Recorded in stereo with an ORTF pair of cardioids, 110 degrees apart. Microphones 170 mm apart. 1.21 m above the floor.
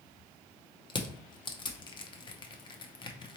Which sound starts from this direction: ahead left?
Crushing, at 0.9 s.